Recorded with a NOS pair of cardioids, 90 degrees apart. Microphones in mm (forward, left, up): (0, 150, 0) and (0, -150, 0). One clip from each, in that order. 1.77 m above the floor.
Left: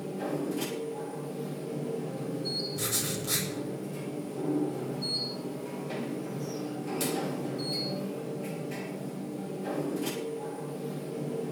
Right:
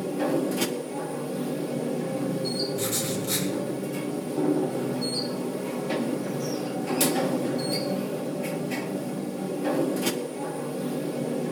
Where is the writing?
5° left, 9 m.